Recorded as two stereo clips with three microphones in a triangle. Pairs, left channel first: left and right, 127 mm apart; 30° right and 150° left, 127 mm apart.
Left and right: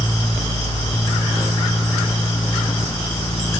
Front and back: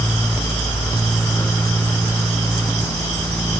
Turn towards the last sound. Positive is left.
No sound to turn to.